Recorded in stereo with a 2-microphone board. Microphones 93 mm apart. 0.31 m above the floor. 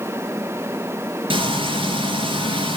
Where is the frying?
65° right (ahead or behind), 3.5 m.